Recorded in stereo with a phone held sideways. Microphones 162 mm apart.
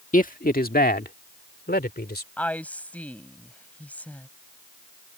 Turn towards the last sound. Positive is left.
turn(degrees=10)  # may be behind; listen again after turning